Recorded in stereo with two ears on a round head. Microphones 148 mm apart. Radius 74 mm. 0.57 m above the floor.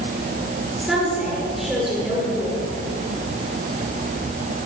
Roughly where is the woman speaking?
Centre.